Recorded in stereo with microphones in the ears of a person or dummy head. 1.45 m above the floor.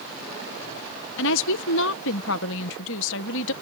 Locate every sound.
1.2 s a woman speaking: 75° left (ahead or behind)